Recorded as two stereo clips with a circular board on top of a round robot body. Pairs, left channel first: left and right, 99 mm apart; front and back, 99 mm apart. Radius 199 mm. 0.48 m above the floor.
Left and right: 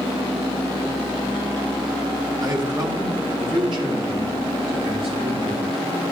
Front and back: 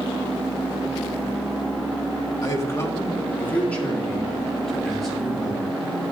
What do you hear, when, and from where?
2.4 s a man speaking: 45° right, 1.8 m; by 5.7 s 95° right, 3.5 m